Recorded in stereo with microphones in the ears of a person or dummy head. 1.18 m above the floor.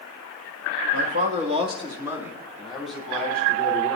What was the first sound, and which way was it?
A man speaking, 60° right (ahead or behind).